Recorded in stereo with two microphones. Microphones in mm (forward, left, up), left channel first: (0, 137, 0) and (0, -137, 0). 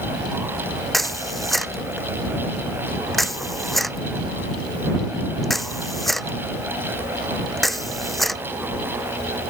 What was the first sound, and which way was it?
A camera shutter, centre (ahead or behind).